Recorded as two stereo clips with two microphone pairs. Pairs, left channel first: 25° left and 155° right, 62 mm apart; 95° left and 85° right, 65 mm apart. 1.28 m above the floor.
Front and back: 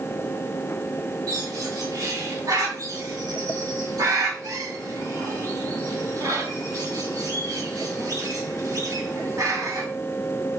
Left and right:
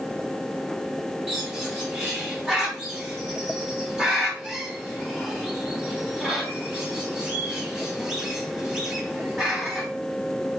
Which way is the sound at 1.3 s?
160° right.